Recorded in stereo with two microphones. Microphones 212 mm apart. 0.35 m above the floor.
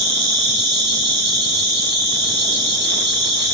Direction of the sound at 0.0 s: 55° right (ahead or behind).